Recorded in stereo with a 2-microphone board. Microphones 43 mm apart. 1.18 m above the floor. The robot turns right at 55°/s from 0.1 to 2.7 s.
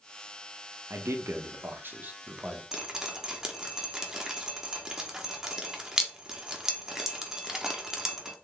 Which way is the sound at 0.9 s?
105° right.